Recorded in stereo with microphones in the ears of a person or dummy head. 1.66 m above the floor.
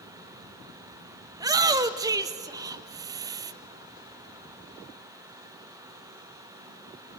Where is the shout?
20° right (ahead or behind), 0.8 m.